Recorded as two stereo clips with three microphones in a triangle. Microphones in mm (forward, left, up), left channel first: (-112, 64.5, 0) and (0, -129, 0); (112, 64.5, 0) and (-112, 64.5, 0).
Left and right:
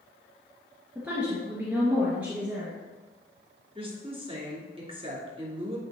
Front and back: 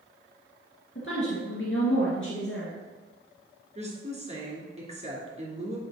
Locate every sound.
0.9 s a woman speaking: 25° left, 2.5 m
3.8 s a woman speaking: 125° right, 2.5 m